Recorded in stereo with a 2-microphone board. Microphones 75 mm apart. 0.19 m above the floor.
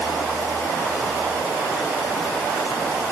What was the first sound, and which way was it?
Only background noise.